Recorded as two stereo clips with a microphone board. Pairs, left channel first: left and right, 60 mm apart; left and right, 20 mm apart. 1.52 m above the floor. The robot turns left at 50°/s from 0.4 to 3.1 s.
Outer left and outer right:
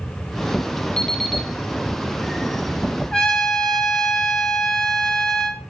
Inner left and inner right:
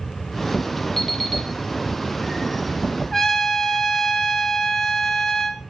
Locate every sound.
1.0 s an alarm clock: 15° left (ahead or behind), 2 m; by 1.5 s 10° right (ahead or behind), 2 m
3.1 s a trumpet: 10° left (ahead or behind), 1.3 m